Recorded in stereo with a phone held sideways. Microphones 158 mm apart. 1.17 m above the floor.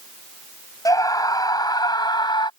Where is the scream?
25° left (ahead or behind); by 2.5 s 30° left (ahead or behind).